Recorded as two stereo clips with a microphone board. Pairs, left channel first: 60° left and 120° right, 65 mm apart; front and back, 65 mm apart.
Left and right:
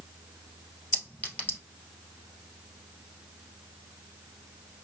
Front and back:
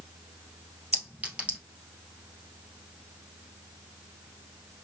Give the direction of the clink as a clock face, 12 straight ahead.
8 o'clock.